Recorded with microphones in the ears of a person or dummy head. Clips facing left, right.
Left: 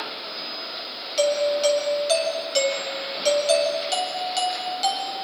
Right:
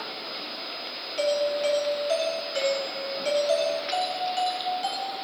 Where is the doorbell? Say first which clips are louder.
Left 4 dB; 60° left (ahead or behind), 8 m.